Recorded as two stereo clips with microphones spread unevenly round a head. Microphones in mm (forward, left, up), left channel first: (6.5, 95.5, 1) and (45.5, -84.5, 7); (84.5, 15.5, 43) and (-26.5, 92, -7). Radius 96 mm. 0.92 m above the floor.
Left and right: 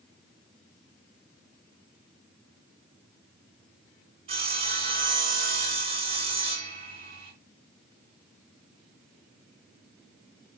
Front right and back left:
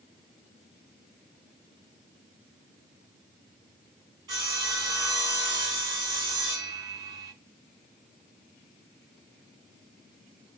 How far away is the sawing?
About 3.5 m.